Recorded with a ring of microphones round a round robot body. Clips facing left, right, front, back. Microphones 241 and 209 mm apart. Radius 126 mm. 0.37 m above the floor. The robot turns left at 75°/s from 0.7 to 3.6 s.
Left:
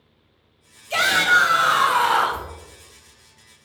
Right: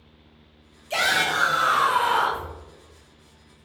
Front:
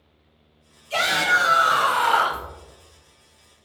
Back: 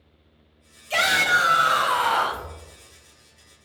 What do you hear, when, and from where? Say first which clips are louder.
0.9 s a shout: left 2 dB, front 1 dB; straight behind, 1.9 m; by 2.5 s 60° left, 1.9 m